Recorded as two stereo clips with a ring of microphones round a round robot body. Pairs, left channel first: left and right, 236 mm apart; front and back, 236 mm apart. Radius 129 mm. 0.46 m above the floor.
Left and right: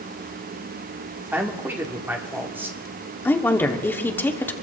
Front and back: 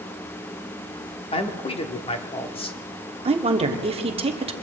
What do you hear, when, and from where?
1.3 s a man speaking: 20° right, 1.3 m
3.2 s a woman speaking: 160° left, 1.2 m